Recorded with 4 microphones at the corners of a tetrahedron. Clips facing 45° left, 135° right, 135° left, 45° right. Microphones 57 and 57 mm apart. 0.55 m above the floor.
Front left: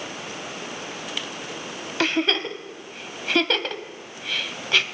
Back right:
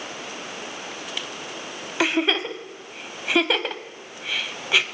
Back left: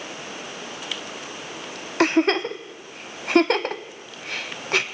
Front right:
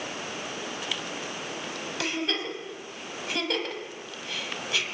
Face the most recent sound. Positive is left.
turn(degrees=150)